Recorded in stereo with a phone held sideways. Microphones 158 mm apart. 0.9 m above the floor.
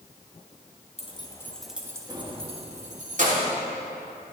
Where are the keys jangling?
40° left (ahead or behind), 0.9 m; by 3.5 s 55° right (ahead or behind), 2.0 m.